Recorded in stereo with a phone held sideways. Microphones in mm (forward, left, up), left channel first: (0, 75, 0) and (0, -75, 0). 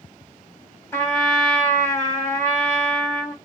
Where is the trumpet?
15° left (ahead or behind), 2 m.